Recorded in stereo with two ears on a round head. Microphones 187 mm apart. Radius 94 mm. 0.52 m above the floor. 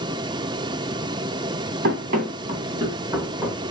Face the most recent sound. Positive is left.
turn(degrees=0)  # may be behind; listen again after turning